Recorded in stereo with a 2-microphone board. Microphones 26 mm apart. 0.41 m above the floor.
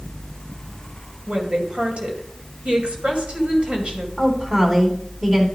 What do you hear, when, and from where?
1.3 s a woman speaking: 50° right (ahead or behind), 2.5 m
4.2 s a woman speaking: 25° right (ahead or behind), 3 m